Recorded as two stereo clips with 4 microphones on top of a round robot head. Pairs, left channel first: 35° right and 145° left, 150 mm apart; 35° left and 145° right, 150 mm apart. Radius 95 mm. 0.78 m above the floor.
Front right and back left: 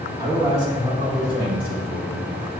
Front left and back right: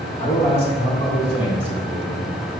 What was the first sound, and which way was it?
A man speaking, 80° left.